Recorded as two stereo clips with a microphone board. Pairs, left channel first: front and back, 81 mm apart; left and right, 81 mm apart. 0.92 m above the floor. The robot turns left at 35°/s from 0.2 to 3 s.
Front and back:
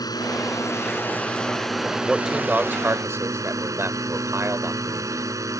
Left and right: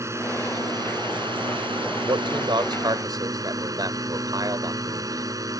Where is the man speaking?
90° right; by 5.3 s 125° right.